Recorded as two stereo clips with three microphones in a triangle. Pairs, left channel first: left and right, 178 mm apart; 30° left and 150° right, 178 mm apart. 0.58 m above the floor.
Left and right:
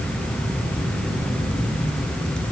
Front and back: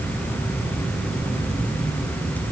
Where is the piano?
I don't hear a piano.